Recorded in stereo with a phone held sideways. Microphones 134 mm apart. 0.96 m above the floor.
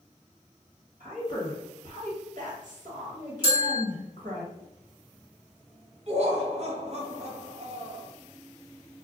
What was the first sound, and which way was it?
A woman speaking, 70° right (ahead or behind).